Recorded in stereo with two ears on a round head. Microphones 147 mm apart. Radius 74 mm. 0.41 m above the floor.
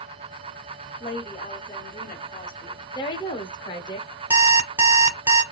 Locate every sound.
1.0 s a woman speaking: 25° left (ahead or behind), 1.1 m
3.0 s a woman speaking: 25° left (ahead or behind), 0.8 m
4.3 s an alarm clock: 15° right (ahead or behind), 1.3 m